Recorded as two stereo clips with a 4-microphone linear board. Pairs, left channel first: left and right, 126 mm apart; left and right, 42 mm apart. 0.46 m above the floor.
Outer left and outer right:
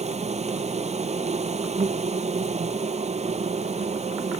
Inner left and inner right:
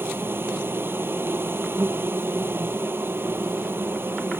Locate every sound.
0.0 s an insect: 60° right (ahead or behind)